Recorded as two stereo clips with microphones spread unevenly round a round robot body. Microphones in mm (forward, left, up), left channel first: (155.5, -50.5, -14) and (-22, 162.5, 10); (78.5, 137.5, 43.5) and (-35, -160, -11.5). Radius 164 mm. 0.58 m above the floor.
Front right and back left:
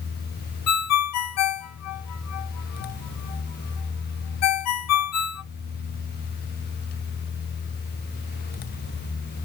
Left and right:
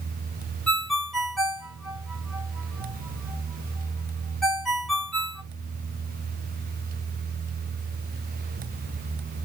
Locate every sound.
0.7 s a ringtone: 25° right, 1.1 m